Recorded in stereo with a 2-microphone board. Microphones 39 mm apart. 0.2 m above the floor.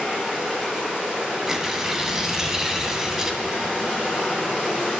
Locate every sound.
0.0 s running water: 15° right (ahead or behind), 2.5 m
1.5 s tearing paper: 15° right (ahead or behind), 0.5 m